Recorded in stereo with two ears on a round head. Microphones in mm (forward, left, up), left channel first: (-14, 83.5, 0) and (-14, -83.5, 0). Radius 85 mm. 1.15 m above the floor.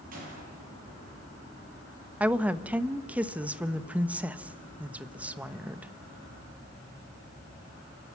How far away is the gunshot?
About 9 m.